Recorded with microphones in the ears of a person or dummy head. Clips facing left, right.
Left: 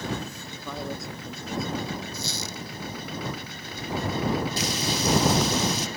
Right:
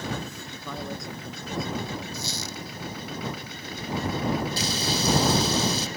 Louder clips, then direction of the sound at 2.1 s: Even; 55° left (ahead or behind).